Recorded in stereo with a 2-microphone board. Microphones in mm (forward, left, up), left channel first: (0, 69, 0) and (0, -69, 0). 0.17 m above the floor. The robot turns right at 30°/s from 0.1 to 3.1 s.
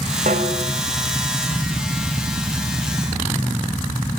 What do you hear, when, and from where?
0.3 s a snare drum: 85° right, 2.5 m; by 0.7 s 80° right, 2.5 m